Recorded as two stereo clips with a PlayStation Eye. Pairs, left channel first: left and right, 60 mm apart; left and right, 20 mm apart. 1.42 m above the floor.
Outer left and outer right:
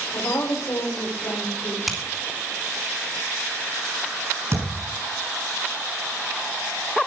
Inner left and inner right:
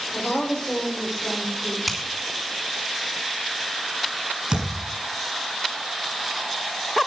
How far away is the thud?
About 6.5 m.